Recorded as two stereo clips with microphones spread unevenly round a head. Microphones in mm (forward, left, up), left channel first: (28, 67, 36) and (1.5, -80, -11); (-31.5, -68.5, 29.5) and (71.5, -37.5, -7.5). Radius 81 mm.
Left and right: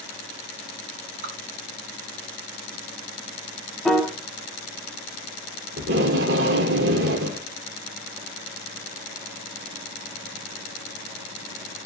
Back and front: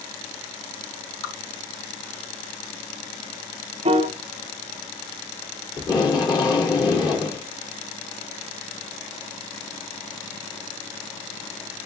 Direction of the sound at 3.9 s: 35° left.